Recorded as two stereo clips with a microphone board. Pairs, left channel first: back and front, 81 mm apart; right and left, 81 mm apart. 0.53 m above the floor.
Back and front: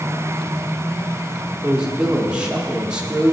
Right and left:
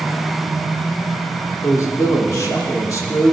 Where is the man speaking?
75° right, 0.9 m.